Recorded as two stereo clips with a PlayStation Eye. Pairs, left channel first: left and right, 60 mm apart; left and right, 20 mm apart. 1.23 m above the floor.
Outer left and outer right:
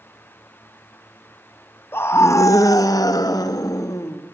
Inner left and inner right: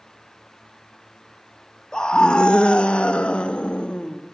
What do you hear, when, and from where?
1.9 s a scream: 40° left (ahead or behind), 1.6 m; by 4.2 s 70° left (ahead or behind), 2.5 m